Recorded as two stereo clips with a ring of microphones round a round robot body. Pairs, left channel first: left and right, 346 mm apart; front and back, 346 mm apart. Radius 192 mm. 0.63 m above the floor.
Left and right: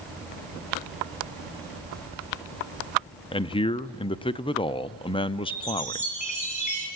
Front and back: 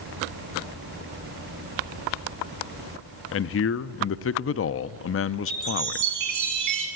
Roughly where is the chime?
Behind.